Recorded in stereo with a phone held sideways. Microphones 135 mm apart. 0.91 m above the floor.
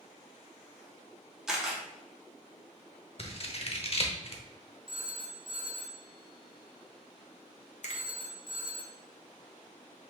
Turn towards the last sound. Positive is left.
turn(degrees=60)  # may be behind; listen again after turning